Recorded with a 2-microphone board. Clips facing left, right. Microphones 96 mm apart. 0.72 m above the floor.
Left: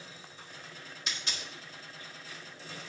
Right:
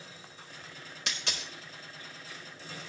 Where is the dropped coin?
75° right (ahead or behind), 0.9 m.